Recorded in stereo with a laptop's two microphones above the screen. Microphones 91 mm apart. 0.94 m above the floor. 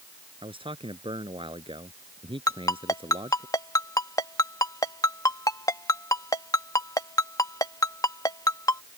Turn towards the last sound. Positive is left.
turn(degrees=40)  # may be behind; listen again after turning